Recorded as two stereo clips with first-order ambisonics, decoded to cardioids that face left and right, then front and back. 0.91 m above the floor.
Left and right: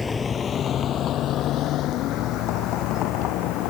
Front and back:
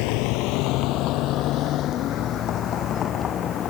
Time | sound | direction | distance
0.0 | a vehicle | 15° left | ?